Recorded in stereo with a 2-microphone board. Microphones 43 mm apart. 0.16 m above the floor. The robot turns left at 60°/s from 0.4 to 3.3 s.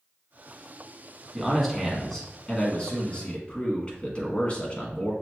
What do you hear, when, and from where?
1.3 s a man speaking: 10° right (ahead or behind), 1.2 m; by 5.1 s 30° left (ahead or behind), 1.2 m